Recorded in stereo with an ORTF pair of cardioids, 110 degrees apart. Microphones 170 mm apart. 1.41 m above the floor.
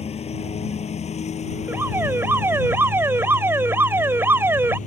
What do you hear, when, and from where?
0.0 s a lawn mower: 35° left; by 4.9 s 45° left
1.7 s an alarm: 10° right